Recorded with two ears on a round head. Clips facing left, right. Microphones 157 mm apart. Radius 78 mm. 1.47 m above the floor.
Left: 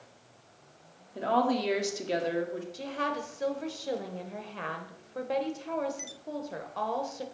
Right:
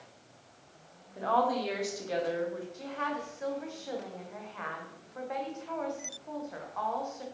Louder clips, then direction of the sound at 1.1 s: Left 2 dB; 30° left (ahead or behind).